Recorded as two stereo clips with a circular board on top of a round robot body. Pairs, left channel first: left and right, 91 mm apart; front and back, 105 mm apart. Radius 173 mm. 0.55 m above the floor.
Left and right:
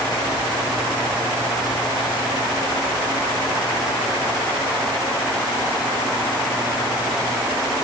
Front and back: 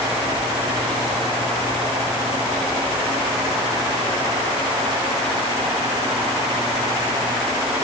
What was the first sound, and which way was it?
Only background noise.